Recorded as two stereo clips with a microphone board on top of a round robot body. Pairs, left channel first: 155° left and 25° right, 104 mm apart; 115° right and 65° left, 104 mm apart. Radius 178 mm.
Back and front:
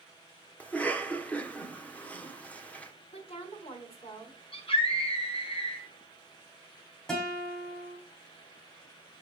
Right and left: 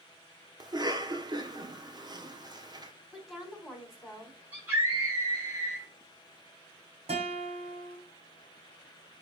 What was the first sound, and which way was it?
A cough, 85° left.